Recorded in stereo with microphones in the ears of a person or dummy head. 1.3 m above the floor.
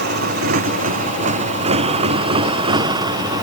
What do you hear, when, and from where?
0.0 s a motorcycle: 50° right (ahead or behind); by 3.4 s 20° right (ahead or behind)